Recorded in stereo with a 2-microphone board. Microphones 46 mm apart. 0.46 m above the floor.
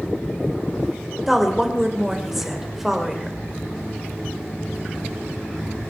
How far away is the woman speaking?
About 1.9 m.